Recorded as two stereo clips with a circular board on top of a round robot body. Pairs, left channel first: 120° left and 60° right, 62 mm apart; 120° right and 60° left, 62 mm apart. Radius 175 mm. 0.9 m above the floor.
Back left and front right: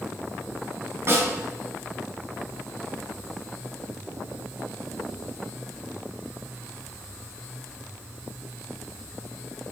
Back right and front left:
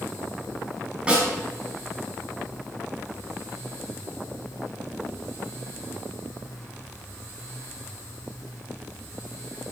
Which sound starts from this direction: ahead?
A snare drum, at 1.1 s.